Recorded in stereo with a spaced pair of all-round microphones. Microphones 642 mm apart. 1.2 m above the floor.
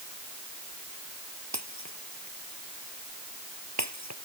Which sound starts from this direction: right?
Breaking glass, at 1.5 s.